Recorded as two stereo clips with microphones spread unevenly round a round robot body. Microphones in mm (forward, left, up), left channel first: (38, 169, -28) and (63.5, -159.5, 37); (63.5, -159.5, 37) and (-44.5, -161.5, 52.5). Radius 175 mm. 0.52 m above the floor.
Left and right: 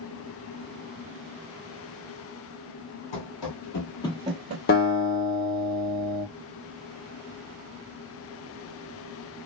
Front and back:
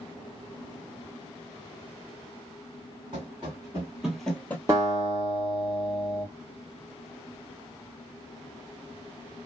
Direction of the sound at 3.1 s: 120° left.